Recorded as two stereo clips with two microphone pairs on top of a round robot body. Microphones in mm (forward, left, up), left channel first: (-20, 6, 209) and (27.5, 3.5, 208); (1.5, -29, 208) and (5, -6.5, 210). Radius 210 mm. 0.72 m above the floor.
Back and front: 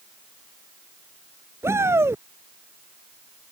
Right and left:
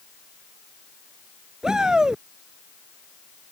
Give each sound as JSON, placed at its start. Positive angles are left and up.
{"t": 1.6, "sound": "a shout", "azimuth_deg": 25}